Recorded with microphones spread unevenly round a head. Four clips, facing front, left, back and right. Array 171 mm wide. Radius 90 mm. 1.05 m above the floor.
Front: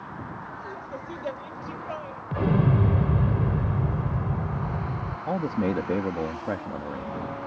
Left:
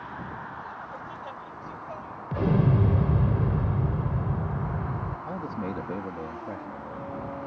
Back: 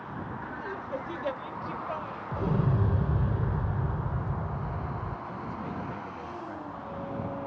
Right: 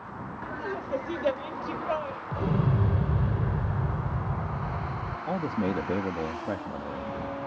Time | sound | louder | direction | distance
0.4 | laughter | right 4 dB, back 1 dB | 110° right | ?
2.3 | an explosion | left 4 dB, front 6 dB | 50° left | ?
5.3 | a man speaking | right 7 dB, front 10 dB | 20° right | ?